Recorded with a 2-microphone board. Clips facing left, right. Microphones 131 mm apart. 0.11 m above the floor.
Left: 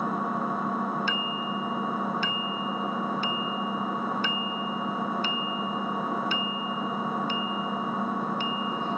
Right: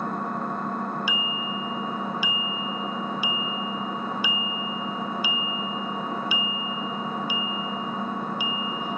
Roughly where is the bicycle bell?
Centre.